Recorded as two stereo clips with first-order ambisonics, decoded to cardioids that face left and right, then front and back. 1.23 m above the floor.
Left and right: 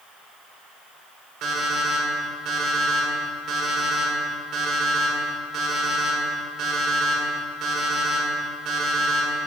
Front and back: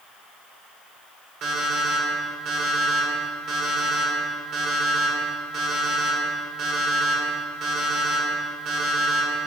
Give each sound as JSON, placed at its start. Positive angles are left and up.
{"t": 1.4, "sound": "an alarm clock", "azimuth_deg": -135, "distance_m": 1.4}